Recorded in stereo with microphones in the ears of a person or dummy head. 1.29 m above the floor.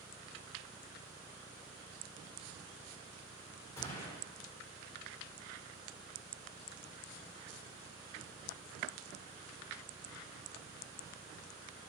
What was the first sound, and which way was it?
A gunshot, 15° left (ahead or behind).